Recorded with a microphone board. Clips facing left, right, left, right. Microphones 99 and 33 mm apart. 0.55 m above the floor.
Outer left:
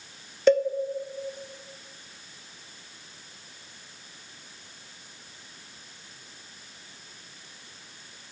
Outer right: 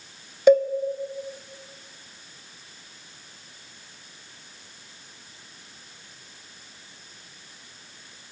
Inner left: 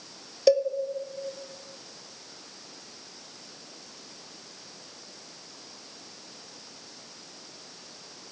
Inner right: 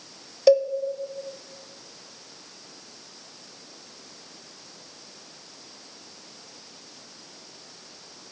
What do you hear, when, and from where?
0.5 s a cowbell: 10° right (ahead or behind), 0.5 m